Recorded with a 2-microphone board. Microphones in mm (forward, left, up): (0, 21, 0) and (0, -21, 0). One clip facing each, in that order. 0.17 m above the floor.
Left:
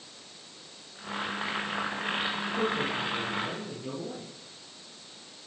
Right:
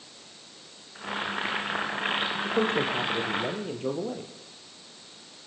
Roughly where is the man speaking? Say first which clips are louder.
Right 5 dB; right.